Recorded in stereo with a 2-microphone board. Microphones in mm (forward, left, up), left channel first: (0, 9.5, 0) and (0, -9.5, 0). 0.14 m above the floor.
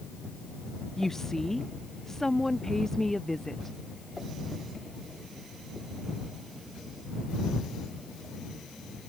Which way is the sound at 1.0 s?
20° left (ahead or behind).